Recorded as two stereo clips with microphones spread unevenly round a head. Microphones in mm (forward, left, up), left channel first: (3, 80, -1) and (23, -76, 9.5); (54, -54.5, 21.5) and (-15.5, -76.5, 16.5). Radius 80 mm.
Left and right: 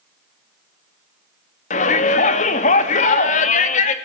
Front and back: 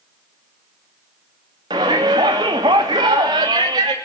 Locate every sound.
1.7 s a shout: 145° left, 2.5 m